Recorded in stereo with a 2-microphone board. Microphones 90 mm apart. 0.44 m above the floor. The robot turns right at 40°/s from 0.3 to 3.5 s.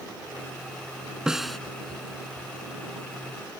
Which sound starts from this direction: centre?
A snare drum, at 1.3 s.